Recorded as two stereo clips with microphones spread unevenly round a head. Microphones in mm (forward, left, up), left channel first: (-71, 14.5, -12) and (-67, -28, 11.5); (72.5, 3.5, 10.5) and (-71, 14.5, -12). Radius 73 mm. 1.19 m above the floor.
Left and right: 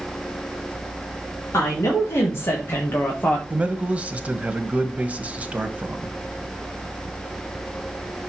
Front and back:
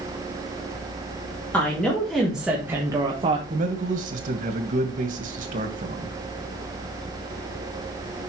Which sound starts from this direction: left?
A woman speaking, at 1.5 s.